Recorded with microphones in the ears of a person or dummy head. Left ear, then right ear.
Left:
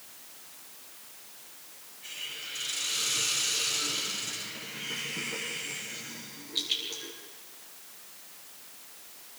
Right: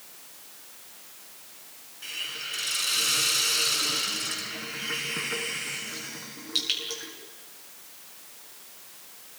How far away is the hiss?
About 4 m.